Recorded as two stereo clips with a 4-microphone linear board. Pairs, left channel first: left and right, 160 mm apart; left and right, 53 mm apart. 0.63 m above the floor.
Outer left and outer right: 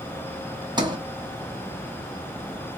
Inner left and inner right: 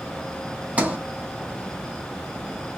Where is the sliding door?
25° right (ahead or behind), 1.0 m.